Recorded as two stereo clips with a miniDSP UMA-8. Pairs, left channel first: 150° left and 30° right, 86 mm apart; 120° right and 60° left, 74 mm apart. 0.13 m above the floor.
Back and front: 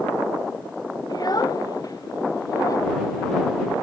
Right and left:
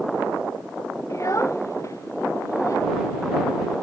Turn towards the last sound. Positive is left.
turn(degrees=-160)